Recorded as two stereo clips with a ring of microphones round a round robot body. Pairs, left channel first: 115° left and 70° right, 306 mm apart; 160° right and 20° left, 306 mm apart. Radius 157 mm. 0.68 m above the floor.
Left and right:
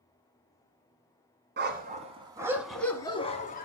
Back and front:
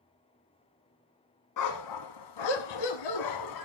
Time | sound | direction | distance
1.6 | a dog barking | 125° right | 1.6 m